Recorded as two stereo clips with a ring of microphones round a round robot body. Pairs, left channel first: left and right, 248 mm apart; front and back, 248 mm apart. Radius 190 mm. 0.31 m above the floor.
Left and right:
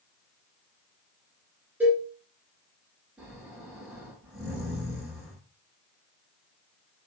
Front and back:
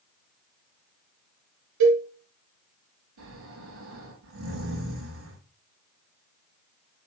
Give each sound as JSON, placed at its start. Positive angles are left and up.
{"t": 1.8, "sound": "a cowbell", "azimuth_deg": -175, "distance_m": 1.5}
{"t": 3.2, "sound": "snoring", "azimuth_deg": 180, "distance_m": 6.0}